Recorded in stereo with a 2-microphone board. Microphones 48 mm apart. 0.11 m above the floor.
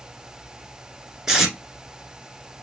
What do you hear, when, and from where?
1.3 s tape being pulled: 10° right (ahead or behind), 1.0 m